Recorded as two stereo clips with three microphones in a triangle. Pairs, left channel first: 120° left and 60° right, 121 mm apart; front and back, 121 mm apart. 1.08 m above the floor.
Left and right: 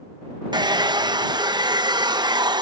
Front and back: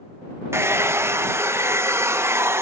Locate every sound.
0.5 s a hair dryer: 110° right